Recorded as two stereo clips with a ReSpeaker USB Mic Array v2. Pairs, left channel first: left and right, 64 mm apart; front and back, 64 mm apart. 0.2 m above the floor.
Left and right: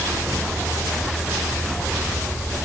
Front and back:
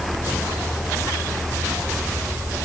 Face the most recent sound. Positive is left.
No sound to turn to.